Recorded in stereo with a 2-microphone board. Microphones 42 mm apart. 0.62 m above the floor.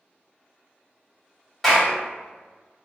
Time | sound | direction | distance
1.6 | a clap | centre (ahead or behind) | 1.3 m